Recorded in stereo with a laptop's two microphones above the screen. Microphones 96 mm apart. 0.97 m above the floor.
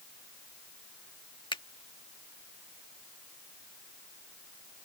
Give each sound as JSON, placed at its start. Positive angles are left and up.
{"t": 1.5, "sound": "a finger snap", "side_deg": 60}